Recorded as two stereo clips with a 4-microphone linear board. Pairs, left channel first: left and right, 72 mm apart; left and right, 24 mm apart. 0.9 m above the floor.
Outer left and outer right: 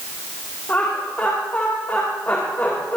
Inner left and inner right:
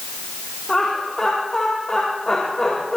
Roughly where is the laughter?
Left.